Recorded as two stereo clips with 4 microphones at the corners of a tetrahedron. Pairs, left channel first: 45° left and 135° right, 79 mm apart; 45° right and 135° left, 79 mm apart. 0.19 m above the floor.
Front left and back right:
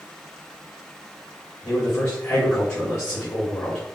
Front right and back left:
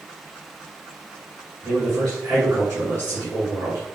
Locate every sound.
1.6 s a man speaking: 90° left, 1.6 m